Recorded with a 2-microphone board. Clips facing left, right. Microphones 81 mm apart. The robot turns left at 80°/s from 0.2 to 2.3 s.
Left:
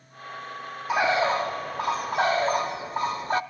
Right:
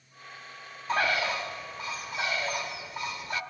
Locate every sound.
0.9 s a bird: 165° left, 0.8 m; by 3.4 s 55° left, 0.8 m